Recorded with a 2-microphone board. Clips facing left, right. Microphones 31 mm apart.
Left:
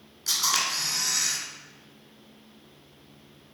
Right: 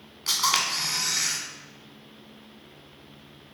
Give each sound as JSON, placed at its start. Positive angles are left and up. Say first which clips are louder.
{"t": 0.3, "sound": "a camera shutter", "louder": "right 2 dB", "side_deg": -40, "distance_m": 1.4}